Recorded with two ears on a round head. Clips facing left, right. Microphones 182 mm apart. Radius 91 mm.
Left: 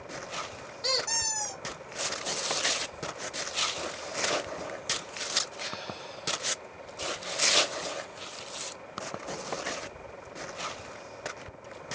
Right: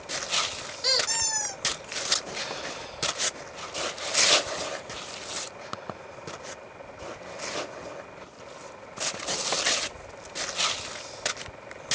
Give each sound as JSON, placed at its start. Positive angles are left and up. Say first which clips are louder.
{"t": 0.8, "sound": "a squeak", "louder": "right 1 dB", "side_deg": -10, "distance_m": 0.8}